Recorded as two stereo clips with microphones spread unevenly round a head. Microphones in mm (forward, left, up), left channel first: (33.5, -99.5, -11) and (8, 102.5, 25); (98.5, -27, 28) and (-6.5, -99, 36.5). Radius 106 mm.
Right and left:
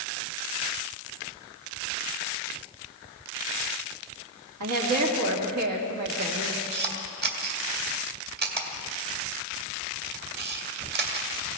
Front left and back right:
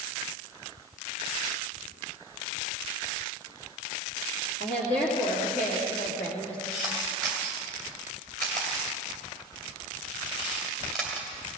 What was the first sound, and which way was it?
A woman speaking, 90° left.